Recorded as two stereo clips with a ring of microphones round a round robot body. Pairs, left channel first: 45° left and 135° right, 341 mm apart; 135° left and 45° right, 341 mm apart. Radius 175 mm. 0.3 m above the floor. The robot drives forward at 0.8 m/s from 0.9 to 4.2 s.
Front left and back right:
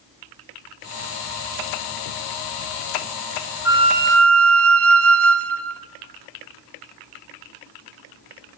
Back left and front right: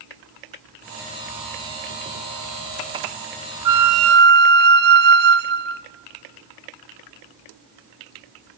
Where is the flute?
55° right, 0.8 m; by 5.8 s 100° right, 0.7 m.